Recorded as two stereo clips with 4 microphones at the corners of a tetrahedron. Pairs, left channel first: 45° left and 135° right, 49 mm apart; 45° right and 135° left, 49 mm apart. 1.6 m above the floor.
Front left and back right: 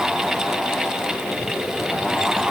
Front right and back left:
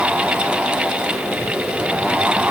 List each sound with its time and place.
Only background noise.